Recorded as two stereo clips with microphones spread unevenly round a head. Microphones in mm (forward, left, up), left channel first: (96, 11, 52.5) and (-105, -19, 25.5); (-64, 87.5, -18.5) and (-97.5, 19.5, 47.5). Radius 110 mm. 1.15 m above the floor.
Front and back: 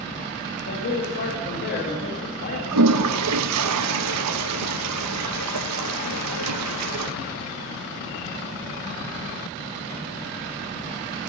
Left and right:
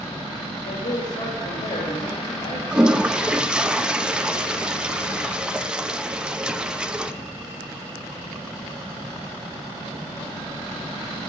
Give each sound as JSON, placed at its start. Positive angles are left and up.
{"t": 0.6, "sound": "a man speaking", "azimuth_deg": 50, "distance_m": 1.8}
{"t": 2.7, "sound": "a toilet flushing", "azimuth_deg": 180, "distance_m": 0.7}